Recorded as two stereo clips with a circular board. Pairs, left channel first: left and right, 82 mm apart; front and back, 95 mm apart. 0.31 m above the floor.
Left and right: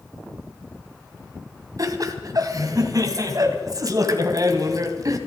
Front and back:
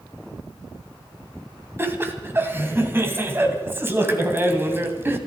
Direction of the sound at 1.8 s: 120° right.